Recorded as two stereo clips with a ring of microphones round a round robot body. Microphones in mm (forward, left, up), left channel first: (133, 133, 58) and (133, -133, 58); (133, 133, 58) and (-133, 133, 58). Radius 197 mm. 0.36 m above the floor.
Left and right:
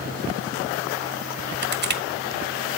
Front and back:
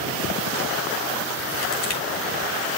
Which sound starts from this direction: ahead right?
Crushing, at 1.6 s.